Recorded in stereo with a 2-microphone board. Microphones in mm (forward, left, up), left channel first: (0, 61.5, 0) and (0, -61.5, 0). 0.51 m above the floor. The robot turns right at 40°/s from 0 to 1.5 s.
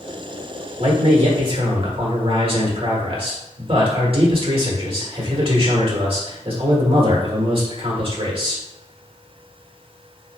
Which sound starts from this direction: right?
A man speaking, at 0.8 s.